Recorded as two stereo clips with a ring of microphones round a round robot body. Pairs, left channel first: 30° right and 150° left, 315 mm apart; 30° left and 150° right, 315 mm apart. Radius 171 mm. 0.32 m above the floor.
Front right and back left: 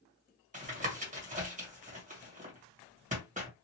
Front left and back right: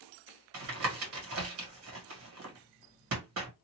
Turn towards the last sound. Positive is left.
turn(degrees=-155)